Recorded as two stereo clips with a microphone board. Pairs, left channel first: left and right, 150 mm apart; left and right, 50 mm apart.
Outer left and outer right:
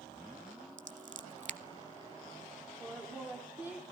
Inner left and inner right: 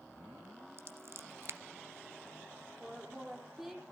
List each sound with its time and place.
0.8 s scissors: 55° right (ahead or behind), 0.9 m
2.8 s a woman speaking: 10° right (ahead or behind), 7.5 m